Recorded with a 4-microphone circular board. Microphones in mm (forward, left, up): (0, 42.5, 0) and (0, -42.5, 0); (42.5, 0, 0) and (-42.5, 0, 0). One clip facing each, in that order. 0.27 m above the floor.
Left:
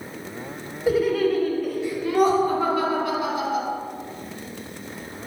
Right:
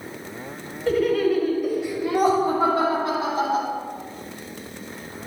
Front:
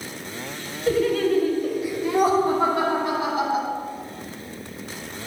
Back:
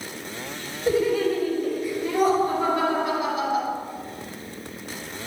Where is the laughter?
150° left, 1.1 m; by 3.7 s 55° right, 2 m.